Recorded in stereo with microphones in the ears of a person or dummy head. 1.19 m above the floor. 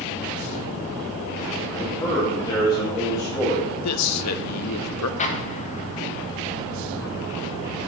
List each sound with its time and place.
1.7 s a man speaking: 25° left (ahead or behind), 4.5 m
3.8 s a man speaking: 80° left, 0.9 m
5.2 s an explosion: 40° left (ahead or behind), 1.1 m